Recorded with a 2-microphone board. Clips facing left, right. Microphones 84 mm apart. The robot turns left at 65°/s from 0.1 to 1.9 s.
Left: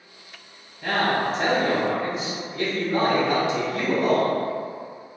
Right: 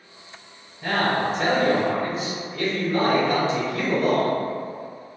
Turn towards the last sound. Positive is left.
turn(degrees=25)  # may be behind; listen again after turning